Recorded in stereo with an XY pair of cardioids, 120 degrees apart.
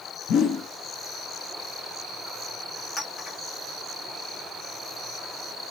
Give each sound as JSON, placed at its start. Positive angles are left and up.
{"t": 0.3, "sound": "a whoosh", "azimuth_deg": 65, "distance_m": 0.7}
{"t": 3.0, "sound": "a clink", "azimuth_deg": 35, "distance_m": 1.3}